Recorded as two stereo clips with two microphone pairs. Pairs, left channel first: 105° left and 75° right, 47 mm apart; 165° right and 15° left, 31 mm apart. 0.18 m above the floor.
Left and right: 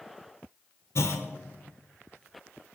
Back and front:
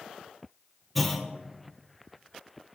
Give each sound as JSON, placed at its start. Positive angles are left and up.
{"t": 0.9, "sound": "a clunk", "azimuth_deg": 110, "distance_m": 1.6}